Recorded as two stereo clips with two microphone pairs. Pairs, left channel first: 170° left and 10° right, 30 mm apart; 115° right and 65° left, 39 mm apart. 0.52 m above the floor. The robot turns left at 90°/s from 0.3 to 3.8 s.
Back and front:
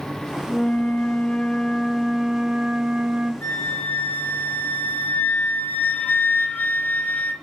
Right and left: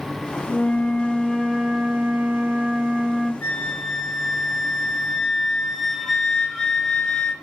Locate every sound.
0.5 s a flute: 140° right, 1.8 m; by 3.3 s 35° right, 1.8 m
3.4 s a flute: 160° right, 2.5 m; by 7.3 s 165° left, 2.5 m